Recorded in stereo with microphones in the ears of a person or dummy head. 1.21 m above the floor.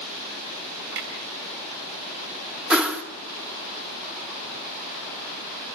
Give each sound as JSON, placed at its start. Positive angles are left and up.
{"t": 0.9, "sound": "a clunk", "side_deg": -60, "distance_m": 6.0}
{"t": 2.7, "sound": "a whoosh", "side_deg": -5, "distance_m": 1.7}